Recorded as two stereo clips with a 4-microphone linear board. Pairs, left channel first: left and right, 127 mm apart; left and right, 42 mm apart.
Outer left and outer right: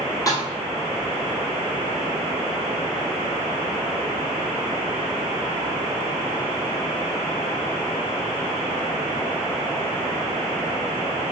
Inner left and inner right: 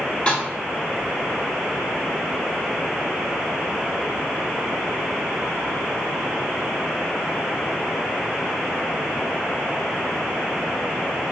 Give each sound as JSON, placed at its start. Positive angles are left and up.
{"t": 0.3, "sound": "a snare drum", "side_deg": 25, "distance_m": 2.0}